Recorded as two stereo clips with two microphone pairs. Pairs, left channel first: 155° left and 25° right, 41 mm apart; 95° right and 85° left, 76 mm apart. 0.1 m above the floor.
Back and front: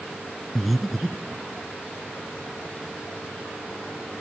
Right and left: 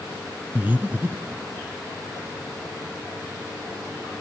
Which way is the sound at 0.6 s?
70° left.